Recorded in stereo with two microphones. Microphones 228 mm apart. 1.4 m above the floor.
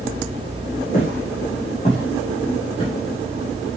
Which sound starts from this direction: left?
Footsteps, at 0.9 s.